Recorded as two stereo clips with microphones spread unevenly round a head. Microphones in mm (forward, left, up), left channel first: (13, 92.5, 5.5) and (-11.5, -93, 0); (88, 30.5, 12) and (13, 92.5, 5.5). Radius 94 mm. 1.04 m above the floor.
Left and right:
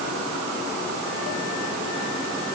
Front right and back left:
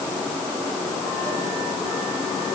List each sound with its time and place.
Only background noise.